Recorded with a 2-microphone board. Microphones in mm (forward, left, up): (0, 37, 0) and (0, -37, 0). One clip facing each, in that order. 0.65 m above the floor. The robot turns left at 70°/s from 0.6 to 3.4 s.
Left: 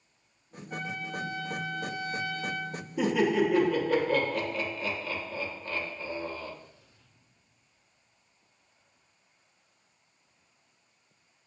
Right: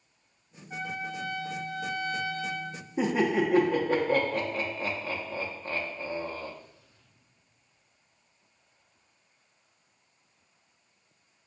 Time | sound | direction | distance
0.7 | a trumpet | 20° right | 0.6 m
3.0 | laughter | 30° right (ahead or behind) | 0.6 m